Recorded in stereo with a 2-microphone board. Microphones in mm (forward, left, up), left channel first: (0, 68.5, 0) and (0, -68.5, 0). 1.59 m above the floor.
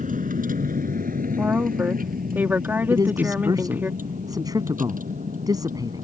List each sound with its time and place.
0.0 s a vehicle: 70° right (ahead or behind)
1.4 s a woman speaking: 15° right (ahead or behind)
2.9 s a man speaking: 25° right (ahead or behind)